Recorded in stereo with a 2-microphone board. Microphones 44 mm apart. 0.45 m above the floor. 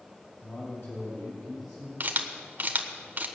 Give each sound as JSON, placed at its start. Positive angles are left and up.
{"t": 0.4, "sound": "a man speaking", "side_deg": 70, "distance_m": 3.5}
{"t": 2.0, "sound": "a camera shutter", "side_deg": -45, "distance_m": 1.1}